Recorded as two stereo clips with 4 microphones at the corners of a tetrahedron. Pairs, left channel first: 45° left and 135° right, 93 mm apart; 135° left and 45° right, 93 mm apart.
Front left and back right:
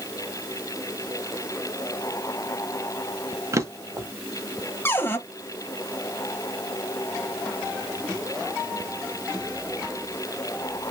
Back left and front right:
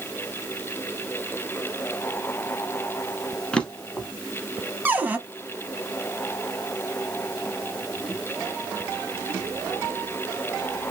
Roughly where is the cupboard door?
Ahead.